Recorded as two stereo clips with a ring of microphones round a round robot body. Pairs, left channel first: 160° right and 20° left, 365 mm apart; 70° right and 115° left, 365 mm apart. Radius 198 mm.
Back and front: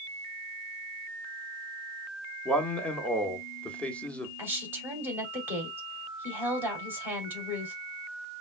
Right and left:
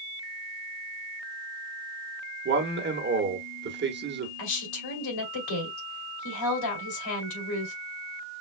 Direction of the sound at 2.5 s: 120° left.